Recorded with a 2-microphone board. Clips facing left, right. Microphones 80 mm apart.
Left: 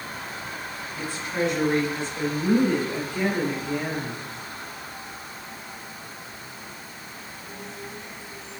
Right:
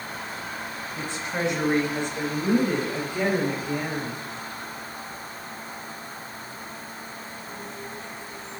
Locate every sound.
1.0 s a woman speaking: 25° right (ahead or behind), 2.5 m; by 4.2 s 15° right (ahead or behind), 4.5 m